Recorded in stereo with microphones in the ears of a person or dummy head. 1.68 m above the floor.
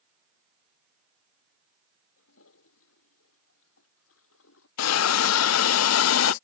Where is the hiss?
75° left (ahead or behind).